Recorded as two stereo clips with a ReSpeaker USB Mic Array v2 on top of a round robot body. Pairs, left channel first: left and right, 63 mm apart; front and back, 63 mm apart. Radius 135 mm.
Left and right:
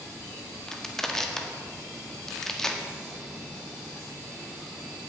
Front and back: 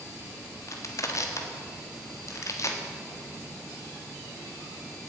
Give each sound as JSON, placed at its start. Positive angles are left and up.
{"t": 0.7, "sound": "crushing", "azimuth_deg": 10, "distance_m": 1.7}